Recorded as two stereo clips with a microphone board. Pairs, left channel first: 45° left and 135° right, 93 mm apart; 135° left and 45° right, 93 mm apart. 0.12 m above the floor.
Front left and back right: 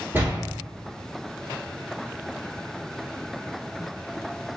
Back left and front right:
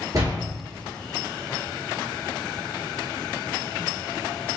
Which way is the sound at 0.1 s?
80° right.